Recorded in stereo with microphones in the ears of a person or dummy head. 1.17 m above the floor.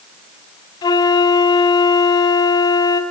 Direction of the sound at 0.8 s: 25° left (ahead or behind).